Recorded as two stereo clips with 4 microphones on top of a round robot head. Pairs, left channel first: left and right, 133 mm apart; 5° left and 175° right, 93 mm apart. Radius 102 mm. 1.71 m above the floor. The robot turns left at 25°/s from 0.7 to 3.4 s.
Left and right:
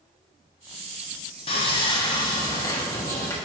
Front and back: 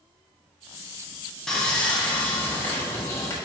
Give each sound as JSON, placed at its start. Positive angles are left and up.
{"t": 1.5, "sound": "sawing", "azimuth_deg": 85, "distance_m": 0.8}